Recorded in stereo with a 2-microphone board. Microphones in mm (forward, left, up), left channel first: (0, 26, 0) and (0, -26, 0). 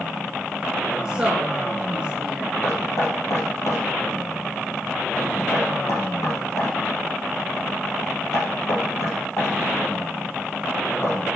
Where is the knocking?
70° left (ahead or behind), 5 m.